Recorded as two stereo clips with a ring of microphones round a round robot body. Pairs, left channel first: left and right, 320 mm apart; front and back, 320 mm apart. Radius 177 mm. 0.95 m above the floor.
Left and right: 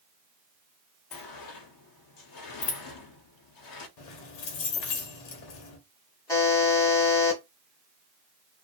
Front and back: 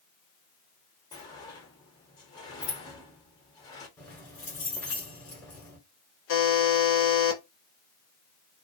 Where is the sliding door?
80° left, 0.7 m.